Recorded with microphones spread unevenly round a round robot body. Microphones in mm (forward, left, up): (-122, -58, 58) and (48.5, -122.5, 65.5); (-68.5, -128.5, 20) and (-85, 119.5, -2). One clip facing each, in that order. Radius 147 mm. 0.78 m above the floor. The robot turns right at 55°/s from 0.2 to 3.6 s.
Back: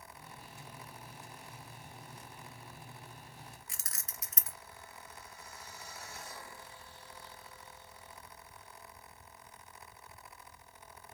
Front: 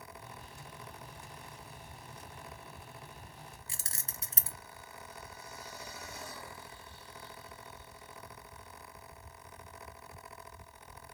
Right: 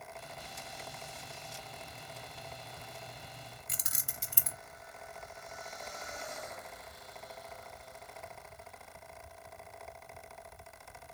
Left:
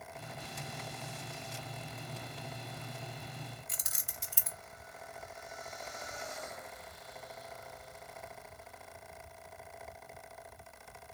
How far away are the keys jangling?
About 0.7 m.